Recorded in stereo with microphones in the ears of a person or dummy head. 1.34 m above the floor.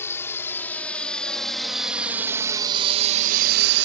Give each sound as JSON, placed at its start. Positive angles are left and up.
{"t": 0.0, "sound": "a drone", "side_deg": 15}